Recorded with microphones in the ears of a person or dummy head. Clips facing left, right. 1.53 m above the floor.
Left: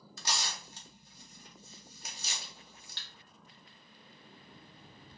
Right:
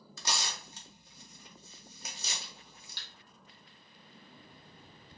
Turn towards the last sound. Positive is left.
turn(degrees=-15)  # may be behind; listen again after turning